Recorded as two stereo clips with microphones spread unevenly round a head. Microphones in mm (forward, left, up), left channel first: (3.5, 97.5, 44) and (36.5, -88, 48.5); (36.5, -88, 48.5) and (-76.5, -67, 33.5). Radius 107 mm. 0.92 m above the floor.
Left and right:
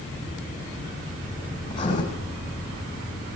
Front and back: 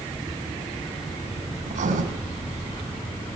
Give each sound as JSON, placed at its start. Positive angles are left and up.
{"t": 1.7, "sound": "writing", "azimuth_deg": 165, "distance_m": 6.5}